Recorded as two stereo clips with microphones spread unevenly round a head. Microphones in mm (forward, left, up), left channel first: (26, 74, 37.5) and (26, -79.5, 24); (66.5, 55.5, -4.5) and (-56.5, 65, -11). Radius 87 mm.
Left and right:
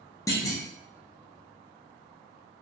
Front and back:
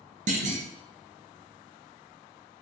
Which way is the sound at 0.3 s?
165° left.